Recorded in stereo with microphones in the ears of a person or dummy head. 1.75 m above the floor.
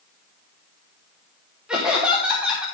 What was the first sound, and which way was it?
Laughter, 5° right (ahead or behind).